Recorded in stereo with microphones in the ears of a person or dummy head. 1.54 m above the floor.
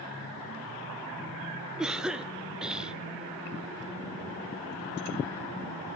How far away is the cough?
About 0.6 m.